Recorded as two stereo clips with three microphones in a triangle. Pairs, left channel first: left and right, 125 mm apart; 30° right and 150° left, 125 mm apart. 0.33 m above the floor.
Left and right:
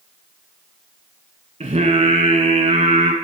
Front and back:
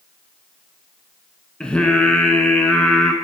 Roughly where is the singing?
Right.